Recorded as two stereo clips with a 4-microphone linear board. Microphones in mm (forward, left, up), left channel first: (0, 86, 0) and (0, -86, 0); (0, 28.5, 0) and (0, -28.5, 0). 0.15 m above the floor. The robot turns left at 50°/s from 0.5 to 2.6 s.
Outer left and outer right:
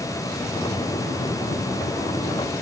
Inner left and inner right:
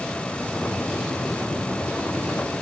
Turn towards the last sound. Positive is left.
No sound to turn to.